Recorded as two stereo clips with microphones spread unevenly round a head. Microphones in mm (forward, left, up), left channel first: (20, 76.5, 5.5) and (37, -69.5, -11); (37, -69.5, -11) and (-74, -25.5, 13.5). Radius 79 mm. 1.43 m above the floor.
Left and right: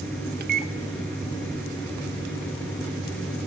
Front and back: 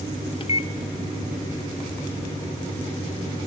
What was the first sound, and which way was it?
A microwave, 65° right.